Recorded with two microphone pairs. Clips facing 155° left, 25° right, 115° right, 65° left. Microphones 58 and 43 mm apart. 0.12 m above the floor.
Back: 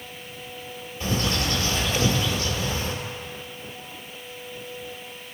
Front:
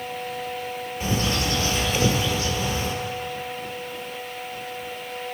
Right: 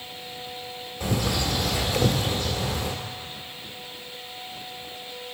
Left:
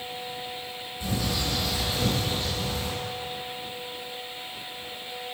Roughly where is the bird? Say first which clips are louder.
Even, right 3 dB; right.